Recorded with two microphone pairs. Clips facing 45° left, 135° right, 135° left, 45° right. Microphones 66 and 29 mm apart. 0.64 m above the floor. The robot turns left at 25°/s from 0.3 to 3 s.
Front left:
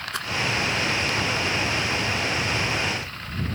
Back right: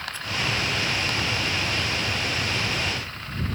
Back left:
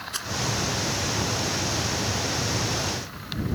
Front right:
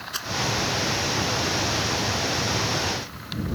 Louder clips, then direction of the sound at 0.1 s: Front left 4 dB, front right 2 dB; 35° left.